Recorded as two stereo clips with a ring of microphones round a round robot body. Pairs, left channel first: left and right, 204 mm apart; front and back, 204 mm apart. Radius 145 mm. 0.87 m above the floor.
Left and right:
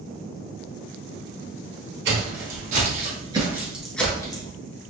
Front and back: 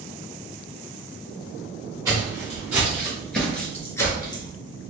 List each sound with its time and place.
2.0 s footsteps: 110° right, 1.2 m; by 4.5 s 45° left, 0.9 m